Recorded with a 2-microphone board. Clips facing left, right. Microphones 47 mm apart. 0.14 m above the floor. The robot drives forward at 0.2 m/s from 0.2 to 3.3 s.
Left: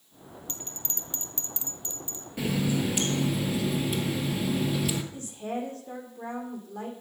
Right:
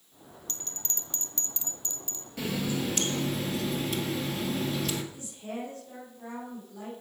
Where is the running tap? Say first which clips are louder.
Left 3 dB; 10° left (ahead or behind), 1.6 m.